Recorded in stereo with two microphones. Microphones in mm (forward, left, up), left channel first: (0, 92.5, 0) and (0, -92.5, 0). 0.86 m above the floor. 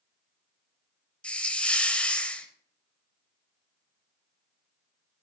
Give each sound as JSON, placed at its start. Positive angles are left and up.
{"t": 1.2, "sound": "a hiss", "side_deg": 5, "distance_m": 0.7}